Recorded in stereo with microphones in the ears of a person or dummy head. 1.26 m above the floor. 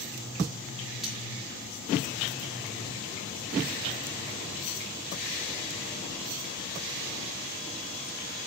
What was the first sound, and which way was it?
Cutlery clinking, 5° right (ahead or behind).